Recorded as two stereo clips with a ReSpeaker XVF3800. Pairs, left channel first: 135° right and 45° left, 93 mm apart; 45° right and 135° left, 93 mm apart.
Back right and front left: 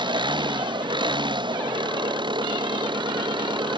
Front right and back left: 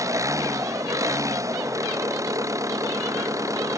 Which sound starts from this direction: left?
An engine running, at 0.0 s.